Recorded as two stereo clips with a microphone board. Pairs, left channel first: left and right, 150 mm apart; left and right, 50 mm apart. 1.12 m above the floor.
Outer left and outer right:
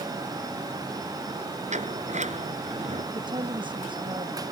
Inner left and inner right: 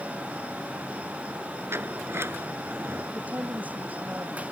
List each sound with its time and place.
1.7 s a sliding door: 50° right (ahead or behind)
3.1 s a woman speaking: 30° right (ahead or behind)